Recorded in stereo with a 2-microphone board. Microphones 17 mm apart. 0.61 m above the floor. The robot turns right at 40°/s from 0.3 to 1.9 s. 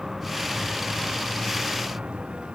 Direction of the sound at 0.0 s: 155° right.